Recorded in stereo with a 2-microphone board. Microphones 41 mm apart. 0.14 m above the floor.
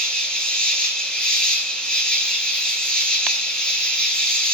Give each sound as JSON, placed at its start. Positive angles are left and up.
{"t": 0.0, "sound": "an insect", "side_deg": 20, "distance_m": 2.0}